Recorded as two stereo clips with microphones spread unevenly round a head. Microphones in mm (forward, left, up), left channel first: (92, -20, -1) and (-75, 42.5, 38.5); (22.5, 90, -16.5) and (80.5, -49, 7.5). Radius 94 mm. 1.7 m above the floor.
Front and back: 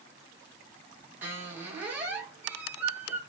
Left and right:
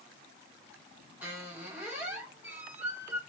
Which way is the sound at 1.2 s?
135° right.